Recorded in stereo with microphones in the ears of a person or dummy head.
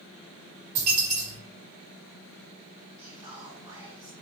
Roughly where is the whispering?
Right.